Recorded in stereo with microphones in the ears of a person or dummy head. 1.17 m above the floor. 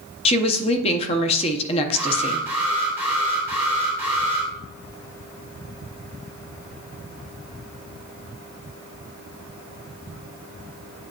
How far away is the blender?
No blender in this recording.